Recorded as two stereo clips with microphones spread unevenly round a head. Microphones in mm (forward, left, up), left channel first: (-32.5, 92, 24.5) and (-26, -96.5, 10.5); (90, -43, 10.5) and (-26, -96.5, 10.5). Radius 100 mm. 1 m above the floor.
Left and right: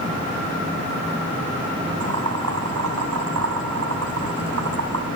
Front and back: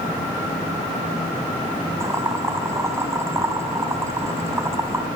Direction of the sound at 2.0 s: 85° right.